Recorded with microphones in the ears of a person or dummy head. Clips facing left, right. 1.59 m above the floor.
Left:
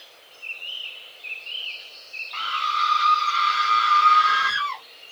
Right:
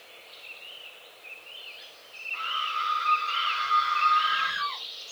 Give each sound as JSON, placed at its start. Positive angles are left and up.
{"t": 2.3, "sound": "a scream", "side_deg": 80, "distance_m": 1.8}